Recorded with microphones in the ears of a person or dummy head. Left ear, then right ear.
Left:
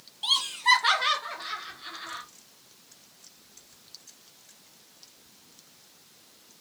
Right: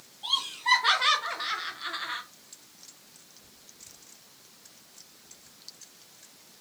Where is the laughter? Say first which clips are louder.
Left 3 dB; 40° left (ahead or behind), 0.9 m; by 2.2 s 40° right (ahead or behind), 1.2 m.